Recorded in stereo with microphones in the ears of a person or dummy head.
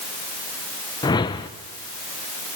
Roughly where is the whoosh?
Left.